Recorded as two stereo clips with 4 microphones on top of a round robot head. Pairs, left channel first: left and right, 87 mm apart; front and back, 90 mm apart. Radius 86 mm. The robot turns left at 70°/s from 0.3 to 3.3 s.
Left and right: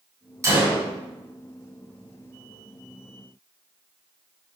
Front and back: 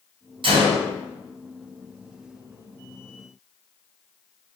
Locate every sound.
0.4 s a gunshot: 145° right, 4 m; by 0.8 s 170° right, 4 m